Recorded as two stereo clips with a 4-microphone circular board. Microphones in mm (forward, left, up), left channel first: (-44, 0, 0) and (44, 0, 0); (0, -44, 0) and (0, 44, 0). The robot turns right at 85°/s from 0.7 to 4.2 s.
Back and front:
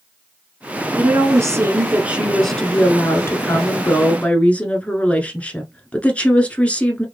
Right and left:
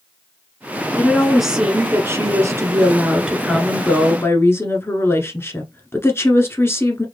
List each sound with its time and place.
1.0 s a woman speaking: 35° right, 1.2 m; by 7.0 s 120° right, 1.2 m